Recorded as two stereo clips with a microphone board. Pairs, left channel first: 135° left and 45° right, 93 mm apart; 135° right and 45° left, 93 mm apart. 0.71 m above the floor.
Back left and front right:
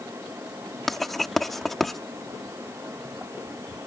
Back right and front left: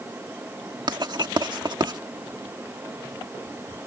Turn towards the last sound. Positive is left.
turn(degrees=50)